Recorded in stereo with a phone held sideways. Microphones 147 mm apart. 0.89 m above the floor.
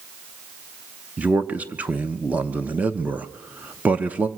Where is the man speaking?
10° right (ahead or behind), 0.8 m.